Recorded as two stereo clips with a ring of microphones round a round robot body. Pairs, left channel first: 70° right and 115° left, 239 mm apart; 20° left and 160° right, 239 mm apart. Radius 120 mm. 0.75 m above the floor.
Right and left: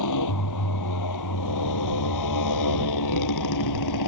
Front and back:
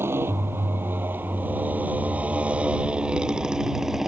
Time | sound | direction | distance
0.0 | a motorcycle | 75° right | ?